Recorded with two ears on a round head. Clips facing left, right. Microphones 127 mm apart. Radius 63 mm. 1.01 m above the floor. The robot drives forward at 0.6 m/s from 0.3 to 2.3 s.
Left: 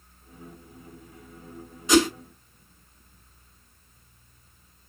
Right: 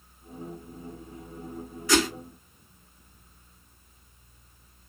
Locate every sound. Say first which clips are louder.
1.9 s a whoosh: left 5 dB; 20° left (ahead or behind), 1.2 m